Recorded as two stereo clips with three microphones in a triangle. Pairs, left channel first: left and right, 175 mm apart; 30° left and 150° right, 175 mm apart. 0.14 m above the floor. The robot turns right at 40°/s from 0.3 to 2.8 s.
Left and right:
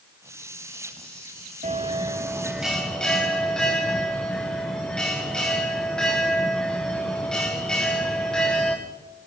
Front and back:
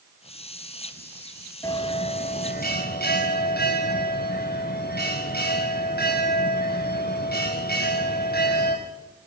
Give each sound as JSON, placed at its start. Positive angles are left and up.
{"t": 1.6, "sound": "a bell", "azimuth_deg": -45, "distance_m": 3.5}